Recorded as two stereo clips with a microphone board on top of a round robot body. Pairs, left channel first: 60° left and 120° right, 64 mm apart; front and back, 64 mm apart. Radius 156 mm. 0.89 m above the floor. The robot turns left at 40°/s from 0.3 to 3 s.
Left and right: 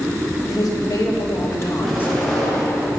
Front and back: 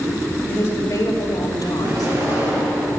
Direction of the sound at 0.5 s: 60° left.